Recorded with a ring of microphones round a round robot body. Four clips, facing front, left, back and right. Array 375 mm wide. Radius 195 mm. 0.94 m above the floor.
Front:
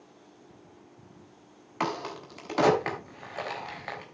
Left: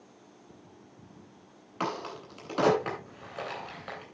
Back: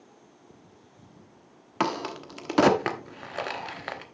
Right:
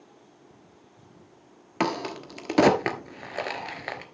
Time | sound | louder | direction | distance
1.8 | a crack | right 6 dB, back 3 dB | 120° right | 1.2 m